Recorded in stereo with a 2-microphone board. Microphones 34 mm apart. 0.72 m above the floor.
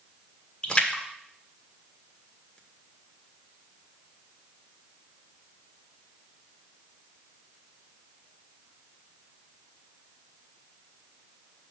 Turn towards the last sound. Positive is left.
turn(degrees=30)  # may be behind; listen again after turning